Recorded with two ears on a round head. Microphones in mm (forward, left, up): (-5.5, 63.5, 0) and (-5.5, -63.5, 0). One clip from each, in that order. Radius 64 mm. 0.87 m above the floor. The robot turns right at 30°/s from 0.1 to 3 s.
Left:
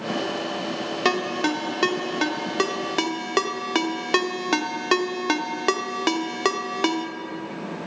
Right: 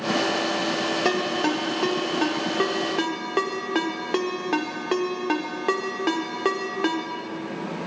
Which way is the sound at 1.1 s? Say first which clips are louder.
Left 4 dB; 30° left (ahead or behind).